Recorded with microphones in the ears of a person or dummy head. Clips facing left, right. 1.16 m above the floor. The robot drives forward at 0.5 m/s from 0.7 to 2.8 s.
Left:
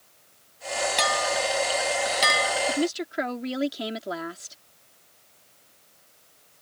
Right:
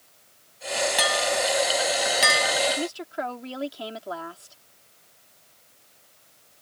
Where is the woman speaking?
25° left (ahead or behind).